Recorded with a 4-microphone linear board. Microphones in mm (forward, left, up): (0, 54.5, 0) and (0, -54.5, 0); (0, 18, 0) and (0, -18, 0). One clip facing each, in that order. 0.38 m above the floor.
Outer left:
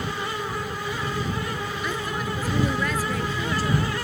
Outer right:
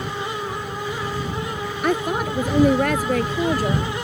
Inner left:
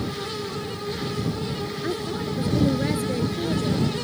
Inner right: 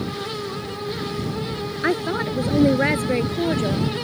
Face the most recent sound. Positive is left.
turn(degrees=-50)  # may be behind; listen again after turning